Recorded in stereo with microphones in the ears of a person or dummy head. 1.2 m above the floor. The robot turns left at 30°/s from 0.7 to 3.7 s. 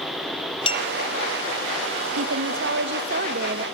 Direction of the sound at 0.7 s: 30° left (ahead or behind).